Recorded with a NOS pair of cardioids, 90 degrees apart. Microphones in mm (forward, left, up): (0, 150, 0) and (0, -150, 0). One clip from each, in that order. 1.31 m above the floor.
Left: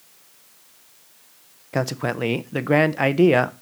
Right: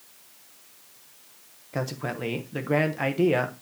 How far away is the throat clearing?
No throat clearing in this recording.